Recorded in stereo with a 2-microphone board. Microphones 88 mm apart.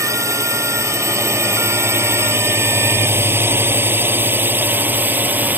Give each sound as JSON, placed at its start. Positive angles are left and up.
{"t": 0.0, "sound": "a drone", "side_deg": -35}